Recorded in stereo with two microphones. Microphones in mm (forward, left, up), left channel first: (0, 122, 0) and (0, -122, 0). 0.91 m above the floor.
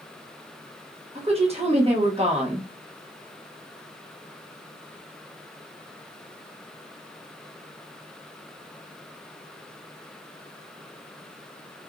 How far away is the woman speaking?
About 0.9 m.